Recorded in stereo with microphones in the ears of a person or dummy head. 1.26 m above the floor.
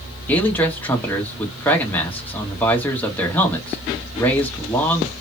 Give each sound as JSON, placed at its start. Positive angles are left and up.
{"t": 0.3, "sound": "a man speaking", "side_deg": 5, "distance_m": 1.1}